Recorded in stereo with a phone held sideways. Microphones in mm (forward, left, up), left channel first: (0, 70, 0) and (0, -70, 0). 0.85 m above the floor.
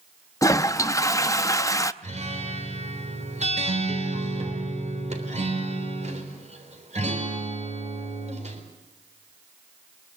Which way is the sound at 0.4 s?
20° left (ahead or behind).